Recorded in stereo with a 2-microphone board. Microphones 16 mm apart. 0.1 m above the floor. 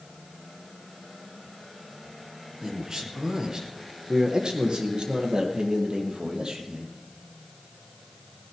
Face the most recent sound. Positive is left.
turn(degrees=-60)  # may be behind; listen again after turning